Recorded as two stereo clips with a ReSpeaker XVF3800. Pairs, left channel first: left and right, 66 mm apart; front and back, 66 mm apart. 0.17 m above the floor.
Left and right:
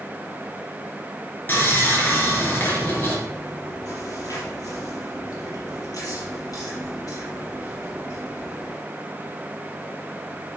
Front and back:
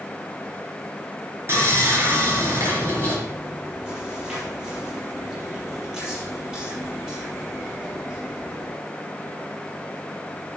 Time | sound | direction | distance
1.5 | sawing | 145° left | 3 m
3.3 | chewing | 105° left | 4.5 m